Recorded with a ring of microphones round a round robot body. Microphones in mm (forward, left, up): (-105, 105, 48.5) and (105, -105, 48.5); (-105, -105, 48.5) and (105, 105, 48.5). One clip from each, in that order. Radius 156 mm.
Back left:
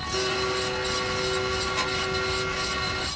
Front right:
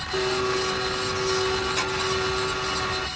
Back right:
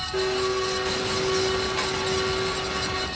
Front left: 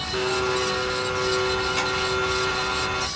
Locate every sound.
0.1 s a blender: 10° left, 2.5 m